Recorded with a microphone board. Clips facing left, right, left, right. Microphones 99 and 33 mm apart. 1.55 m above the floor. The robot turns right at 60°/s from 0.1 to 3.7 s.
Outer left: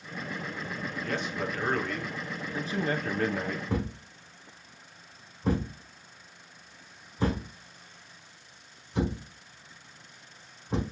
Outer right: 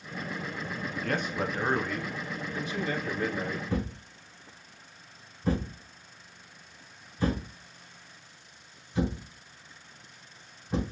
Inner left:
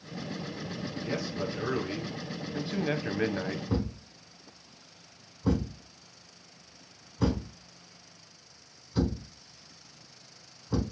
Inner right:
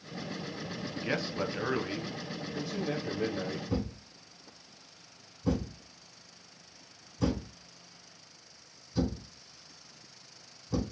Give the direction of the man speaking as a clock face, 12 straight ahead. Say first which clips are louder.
Outer right 2 dB, inner right 1 dB; 2 o'clock.